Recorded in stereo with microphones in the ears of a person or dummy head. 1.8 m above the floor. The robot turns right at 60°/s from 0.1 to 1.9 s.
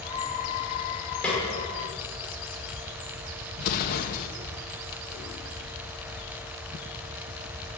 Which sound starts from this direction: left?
An explosion, at 3.6 s.